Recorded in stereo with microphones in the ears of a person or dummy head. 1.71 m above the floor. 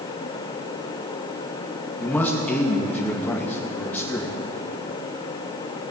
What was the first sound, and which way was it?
A man speaking, centre (ahead or behind).